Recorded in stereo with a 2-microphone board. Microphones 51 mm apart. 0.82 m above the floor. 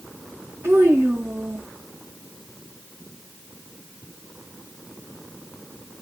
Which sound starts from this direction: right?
A child speaking, at 0.6 s.